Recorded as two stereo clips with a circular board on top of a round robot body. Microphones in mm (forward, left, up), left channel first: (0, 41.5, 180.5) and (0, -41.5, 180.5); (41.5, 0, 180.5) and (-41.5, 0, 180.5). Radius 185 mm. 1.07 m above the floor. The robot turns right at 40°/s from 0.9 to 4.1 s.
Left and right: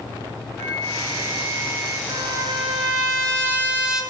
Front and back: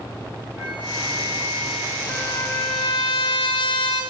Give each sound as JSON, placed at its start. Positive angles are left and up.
{"t": 0.6, "sound": "a flute", "azimuth_deg": 155, "distance_m": 4.5}
{"t": 2.1, "sound": "a trumpet", "azimuth_deg": -80, "distance_m": 1.4}